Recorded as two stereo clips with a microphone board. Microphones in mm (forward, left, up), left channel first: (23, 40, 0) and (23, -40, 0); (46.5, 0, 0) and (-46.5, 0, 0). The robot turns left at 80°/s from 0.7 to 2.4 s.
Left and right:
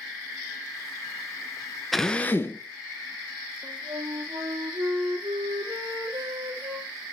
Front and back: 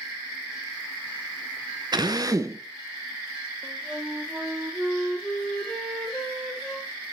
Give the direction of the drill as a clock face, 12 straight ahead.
6 o'clock.